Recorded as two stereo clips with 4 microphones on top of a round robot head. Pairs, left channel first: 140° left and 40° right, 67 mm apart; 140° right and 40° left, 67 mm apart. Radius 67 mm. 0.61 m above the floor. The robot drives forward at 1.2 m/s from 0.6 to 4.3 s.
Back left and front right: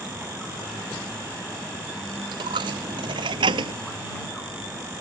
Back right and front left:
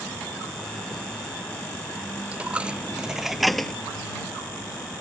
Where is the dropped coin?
30° right; by 3.7 s 55° right.